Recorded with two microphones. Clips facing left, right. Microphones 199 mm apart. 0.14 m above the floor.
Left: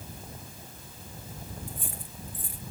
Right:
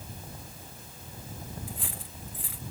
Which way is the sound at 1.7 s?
85° right.